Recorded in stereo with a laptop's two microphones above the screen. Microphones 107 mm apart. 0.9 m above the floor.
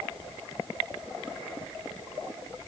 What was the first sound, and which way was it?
Only background noise.